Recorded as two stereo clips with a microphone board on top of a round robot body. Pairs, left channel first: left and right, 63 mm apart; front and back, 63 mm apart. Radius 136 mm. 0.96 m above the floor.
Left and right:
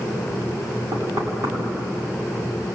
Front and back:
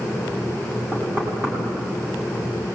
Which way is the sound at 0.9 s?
125° right.